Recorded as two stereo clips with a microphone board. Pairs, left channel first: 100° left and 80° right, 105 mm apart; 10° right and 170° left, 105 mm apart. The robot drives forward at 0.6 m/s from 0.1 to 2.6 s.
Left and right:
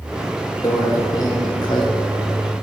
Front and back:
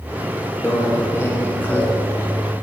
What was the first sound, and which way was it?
A microwave, 45° left.